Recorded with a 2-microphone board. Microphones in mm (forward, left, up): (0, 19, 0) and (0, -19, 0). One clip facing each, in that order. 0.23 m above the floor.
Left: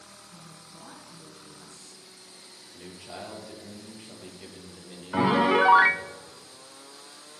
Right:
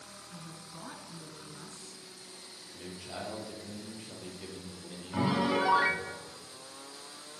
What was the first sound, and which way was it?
A woman speaking, 20° right (ahead or behind).